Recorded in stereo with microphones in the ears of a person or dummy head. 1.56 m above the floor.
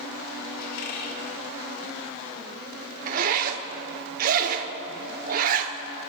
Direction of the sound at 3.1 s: 50° right (ahead or behind).